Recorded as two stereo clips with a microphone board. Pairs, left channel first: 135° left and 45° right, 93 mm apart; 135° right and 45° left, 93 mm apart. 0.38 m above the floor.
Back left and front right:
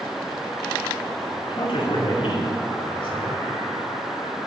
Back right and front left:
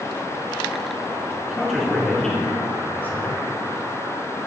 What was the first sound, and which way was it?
A man speaking, 130° left.